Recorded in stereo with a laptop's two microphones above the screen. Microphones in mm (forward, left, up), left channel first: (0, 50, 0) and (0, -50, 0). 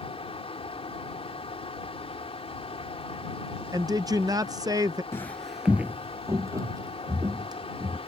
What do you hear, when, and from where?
0.0 s a fan: 80° left
3.7 s a woman speaking: 40° right (ahead or behind)
5.1 s footsteps: 25° left (ahead or behind); by 8.0 s 40° right (ahead or behind)